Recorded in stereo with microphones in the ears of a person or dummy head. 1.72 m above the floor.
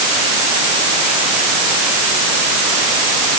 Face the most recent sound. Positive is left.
No sound to turn to.